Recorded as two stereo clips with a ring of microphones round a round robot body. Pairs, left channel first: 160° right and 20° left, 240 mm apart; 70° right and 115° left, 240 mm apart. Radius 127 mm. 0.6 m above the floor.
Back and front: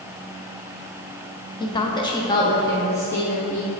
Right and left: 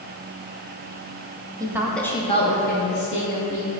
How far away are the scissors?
I don't hear scissors.